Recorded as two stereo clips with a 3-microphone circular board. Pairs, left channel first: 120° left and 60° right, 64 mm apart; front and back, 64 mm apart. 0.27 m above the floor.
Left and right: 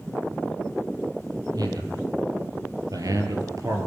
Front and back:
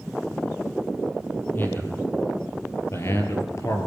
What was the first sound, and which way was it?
A man speaking, 55° right.